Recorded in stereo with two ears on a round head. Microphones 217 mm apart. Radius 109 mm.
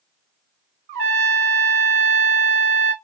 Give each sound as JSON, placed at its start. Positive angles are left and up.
{"t": 0.9, "sound": "a trumpet", "side_deg": -50, "distance_m": 1.0}